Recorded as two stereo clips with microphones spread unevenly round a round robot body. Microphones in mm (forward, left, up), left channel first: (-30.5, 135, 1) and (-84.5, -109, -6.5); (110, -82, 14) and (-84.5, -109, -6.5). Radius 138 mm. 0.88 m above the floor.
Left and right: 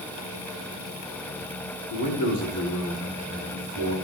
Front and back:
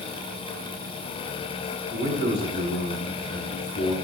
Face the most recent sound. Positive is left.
turn(degrees=50)